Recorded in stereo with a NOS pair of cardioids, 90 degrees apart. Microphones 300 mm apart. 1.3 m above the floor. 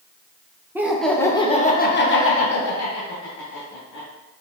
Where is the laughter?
5° right, 1.0 m; by 4.1 s 80° left, 1.7 m.